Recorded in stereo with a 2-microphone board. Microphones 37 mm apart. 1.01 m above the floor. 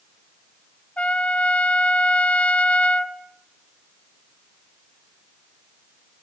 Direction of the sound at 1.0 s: 40° left (ahead or behind).